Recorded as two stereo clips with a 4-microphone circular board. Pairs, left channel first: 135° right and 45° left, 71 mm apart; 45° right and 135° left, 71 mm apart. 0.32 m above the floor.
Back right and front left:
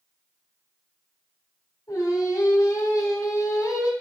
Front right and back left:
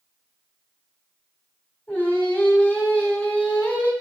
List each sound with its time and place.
1.9 s singing: 105° right, 1.7 m